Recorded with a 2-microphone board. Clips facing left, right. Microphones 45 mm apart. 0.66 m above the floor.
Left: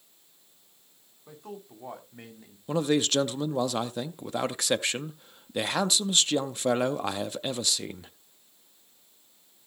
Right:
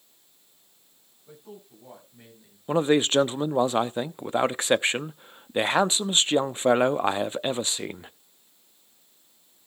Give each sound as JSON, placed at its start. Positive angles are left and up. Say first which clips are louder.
{"t": 1.3, "sound": "a man speaking", "louder": "left 3 dB", "side_deg": 65, "distance_m": 4.5}
{"t": 2.7, "sound": "a man speaking", "louder": "right 4 dB", "side_deg": -30, "distance_m": 0.5}